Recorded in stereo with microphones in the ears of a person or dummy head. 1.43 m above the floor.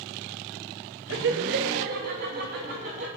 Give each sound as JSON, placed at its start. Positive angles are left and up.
{"t": 1.1, "sound": "laughter", "side_deg": -65, "distance_m": 1.1}